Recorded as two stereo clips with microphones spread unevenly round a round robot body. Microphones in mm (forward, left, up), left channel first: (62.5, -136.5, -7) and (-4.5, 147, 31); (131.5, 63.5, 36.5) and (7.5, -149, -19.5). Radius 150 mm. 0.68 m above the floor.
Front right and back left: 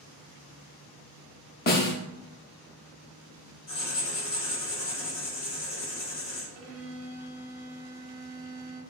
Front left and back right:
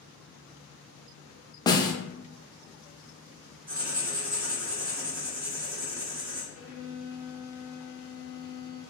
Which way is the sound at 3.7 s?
80° right.